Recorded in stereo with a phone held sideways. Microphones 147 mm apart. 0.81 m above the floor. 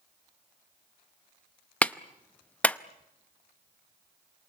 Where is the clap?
10° left (ahead or behind), 0.6 m.